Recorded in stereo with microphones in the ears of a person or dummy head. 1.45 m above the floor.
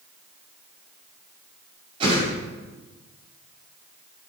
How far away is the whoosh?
About 6.5 m.